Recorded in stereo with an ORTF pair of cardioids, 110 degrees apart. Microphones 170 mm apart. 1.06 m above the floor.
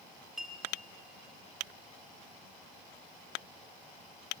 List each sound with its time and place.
0.4 s a clink: 5° right, 3 m